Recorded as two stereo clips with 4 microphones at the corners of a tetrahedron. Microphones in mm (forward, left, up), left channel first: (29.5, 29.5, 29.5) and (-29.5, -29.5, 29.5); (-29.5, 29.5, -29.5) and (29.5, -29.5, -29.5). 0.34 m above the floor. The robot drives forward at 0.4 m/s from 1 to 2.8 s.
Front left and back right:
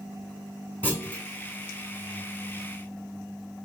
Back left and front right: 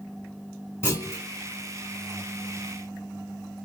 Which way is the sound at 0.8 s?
100° left.